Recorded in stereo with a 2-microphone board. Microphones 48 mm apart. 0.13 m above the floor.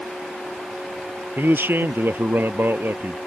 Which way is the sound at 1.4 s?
55° right (ahead or behind).